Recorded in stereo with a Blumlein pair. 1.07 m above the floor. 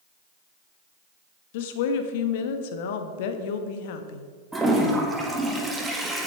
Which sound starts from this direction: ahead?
A toilet flushing, at 4.5 s.